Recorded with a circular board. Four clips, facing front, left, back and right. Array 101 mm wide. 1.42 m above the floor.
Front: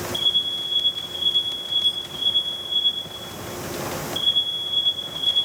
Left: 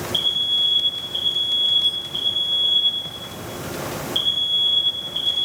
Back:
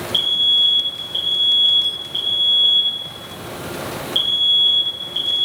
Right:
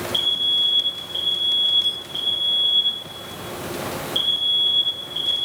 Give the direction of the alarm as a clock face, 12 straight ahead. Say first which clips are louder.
Even, back 5 dB; 6 o'clock.